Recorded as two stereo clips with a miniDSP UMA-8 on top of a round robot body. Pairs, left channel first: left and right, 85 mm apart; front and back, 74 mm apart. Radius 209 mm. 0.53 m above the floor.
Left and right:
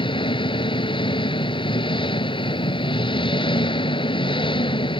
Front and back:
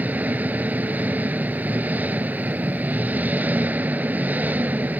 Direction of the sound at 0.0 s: 110° left.